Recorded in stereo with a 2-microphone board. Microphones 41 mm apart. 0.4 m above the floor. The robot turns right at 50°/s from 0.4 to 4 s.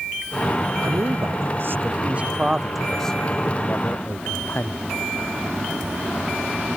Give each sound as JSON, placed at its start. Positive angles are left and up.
{"t": 0.8, "sound": "a man speaking", "azimuth_deg": -100}